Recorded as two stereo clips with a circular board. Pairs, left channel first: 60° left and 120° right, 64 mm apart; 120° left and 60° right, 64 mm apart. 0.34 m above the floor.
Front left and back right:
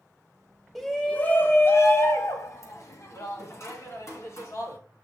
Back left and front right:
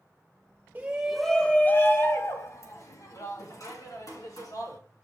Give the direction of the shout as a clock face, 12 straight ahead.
1 o'clock.